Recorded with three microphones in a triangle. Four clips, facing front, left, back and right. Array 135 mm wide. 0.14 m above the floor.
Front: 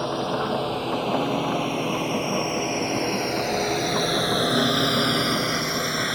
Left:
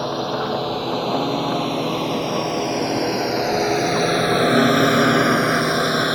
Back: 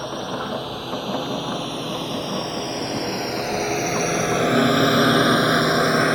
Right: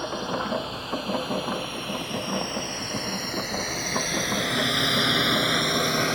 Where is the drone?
65° left; by 6.2 s 160° left.